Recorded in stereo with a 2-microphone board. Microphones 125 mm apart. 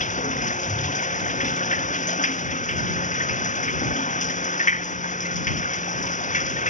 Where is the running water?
80° left.